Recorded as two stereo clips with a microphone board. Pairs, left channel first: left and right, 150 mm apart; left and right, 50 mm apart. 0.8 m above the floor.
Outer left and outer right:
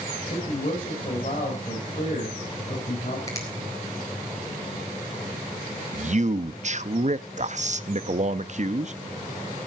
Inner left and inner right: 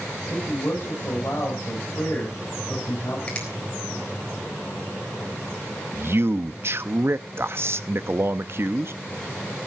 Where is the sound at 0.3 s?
50° left (ahead or behind), 5 m.